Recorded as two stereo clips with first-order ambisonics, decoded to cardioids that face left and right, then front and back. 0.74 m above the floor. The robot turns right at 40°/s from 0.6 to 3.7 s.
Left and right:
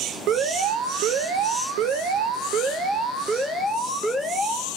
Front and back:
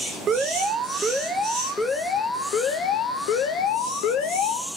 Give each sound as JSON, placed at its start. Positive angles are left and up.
{"t": 0.3, "sound": "an alarm", "azimuth_deg": -120, "distance_m": 0.6}